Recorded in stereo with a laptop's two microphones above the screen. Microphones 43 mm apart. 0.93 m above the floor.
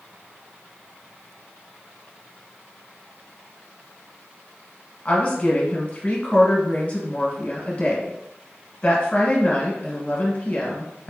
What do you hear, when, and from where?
5.0 s a woman speaking: 30° left (ahead or behind), 1.0 m